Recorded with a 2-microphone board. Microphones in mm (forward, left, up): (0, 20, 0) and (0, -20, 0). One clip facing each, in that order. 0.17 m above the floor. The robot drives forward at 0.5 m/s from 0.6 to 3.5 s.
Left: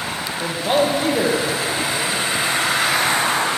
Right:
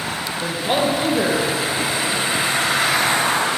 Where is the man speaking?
65° left (ahead or behind), 4.5 m; by 2.2 s 70° left (ahead or behind), 4.5 m.